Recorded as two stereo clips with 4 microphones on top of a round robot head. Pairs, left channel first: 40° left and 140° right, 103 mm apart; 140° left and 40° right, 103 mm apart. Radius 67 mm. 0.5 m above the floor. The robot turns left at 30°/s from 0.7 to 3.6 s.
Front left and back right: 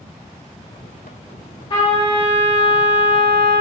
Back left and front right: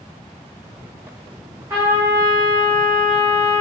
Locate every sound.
1.7 s a trumpet: 15° left, 2 m; by 3.6 s 40° right, 2 m